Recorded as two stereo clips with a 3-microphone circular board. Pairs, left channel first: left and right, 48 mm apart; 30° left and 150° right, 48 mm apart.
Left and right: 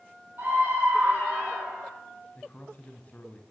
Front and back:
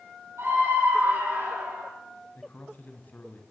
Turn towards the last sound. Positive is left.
turn(degrees=50)